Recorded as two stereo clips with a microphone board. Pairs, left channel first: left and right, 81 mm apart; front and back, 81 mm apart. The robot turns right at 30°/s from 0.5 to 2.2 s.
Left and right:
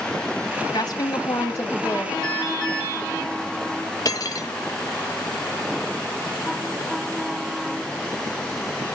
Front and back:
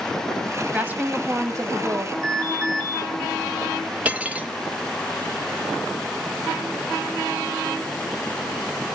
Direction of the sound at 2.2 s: 135° right.